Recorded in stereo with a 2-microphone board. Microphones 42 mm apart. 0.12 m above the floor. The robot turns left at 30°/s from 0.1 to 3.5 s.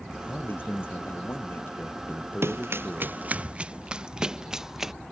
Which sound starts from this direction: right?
Running footsteps, at 2.4 s.